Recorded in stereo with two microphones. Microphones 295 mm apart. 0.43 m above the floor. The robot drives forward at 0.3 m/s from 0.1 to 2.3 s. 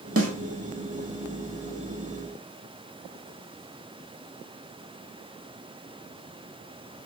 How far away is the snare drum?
About 0.6 m.